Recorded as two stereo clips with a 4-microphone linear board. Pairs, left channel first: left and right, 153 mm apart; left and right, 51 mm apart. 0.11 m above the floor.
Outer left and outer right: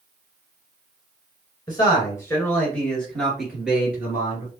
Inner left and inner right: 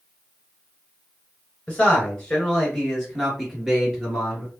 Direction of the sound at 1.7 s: 25° left (ahead or behind).